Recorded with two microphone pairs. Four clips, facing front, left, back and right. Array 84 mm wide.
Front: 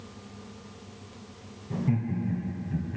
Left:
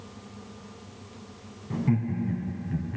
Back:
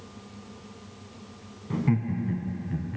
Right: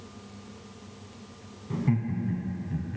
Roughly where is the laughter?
Behind.